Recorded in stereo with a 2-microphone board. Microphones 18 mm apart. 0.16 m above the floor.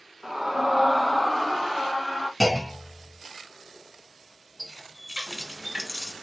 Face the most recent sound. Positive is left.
turn(degrees=-35)  # may be behind; listen again after turning